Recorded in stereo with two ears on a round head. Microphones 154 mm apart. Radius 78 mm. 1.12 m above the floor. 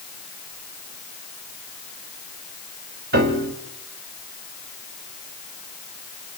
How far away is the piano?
About 2 m.